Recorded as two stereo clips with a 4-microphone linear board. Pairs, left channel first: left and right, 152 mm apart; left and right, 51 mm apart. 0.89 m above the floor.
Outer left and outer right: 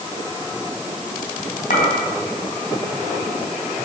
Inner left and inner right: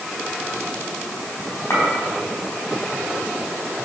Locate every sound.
1.7 s a clink: 65° left (ahead or behind), 4.5 m